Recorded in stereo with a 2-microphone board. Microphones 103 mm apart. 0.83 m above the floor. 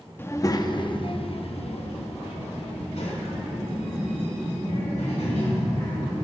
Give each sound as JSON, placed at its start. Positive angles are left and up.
{"t": 0.2, "sound": "a child speaking", "side_deg": 20, "distance_m": 0.8}